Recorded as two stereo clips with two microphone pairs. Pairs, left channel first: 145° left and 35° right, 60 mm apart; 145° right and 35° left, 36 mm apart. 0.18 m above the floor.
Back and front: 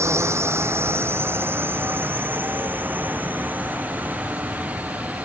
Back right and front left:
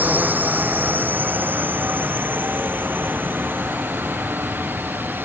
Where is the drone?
5° left; by 5.3 s 35° left.